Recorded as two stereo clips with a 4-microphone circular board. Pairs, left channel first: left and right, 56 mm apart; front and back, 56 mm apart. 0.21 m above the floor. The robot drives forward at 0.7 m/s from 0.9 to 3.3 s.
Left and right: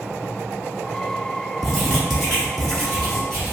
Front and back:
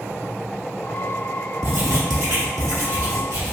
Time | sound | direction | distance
1.6 | writing | straight behind | 1.3 m